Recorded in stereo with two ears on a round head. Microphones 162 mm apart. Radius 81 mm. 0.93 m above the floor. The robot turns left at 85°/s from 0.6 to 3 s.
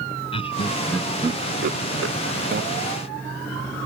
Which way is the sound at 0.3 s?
30° left (ahead or behind).